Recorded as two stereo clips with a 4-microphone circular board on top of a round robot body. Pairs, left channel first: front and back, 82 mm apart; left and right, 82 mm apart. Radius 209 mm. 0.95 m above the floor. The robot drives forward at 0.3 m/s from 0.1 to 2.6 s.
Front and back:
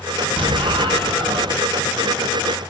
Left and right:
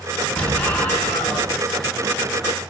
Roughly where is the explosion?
Behind.